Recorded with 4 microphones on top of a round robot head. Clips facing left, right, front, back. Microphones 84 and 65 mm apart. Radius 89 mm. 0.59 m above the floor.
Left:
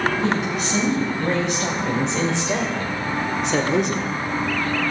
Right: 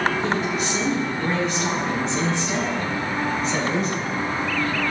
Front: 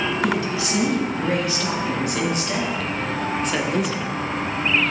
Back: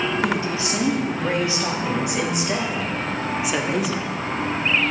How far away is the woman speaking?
About 3.5 m.